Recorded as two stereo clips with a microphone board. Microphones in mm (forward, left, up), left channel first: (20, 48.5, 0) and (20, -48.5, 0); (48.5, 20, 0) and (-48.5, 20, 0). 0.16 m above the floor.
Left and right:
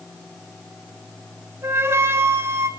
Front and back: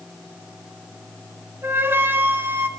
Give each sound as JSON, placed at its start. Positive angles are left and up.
{"t": 1.6, "sound": "a flute", "azimuth_deg": -130, "distance_m": 0.9}